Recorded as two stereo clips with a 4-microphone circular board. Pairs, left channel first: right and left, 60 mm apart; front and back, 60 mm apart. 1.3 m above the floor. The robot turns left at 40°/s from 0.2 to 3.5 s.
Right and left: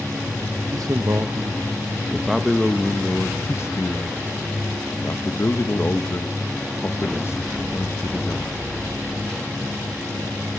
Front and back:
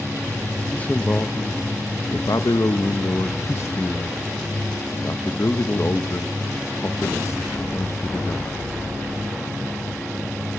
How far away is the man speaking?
About 1.2 m.